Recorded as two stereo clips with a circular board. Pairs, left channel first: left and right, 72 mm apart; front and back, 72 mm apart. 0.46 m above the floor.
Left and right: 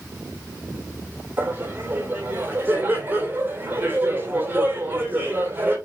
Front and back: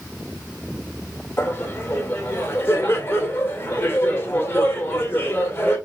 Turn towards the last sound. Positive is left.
turn(degrees=-45)